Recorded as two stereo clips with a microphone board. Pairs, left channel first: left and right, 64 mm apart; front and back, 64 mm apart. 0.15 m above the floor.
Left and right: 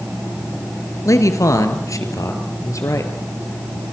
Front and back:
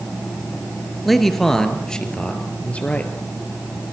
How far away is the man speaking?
About 3 m.